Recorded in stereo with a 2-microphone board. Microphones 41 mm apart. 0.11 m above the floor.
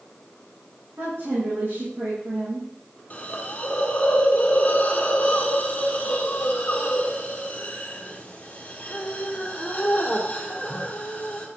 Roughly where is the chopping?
No chopping in this recording.